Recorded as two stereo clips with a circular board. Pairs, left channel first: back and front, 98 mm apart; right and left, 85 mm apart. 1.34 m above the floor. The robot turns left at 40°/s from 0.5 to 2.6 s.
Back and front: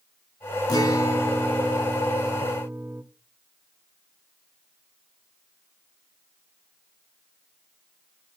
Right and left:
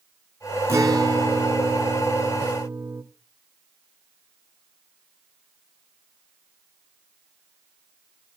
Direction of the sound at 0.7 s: 145° left.